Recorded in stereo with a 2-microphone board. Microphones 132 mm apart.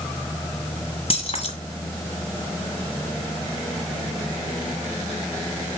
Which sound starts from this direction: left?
Keys jangling, at 1.1 s.